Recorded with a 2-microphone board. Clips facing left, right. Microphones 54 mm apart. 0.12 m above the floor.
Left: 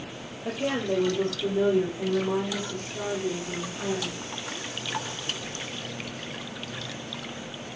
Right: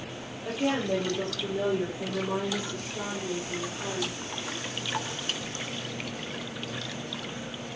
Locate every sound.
0.4 s a woman speaking: 15° left (ahead or behind), 4.5 m; by 4.2 s 35° left (ahead or behind), 6.5 m